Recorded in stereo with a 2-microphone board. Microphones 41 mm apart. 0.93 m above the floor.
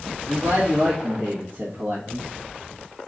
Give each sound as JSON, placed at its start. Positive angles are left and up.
{"t": 0.3, "sound": "a man speaking", "side_deg": -60, "distance_m": 2.0}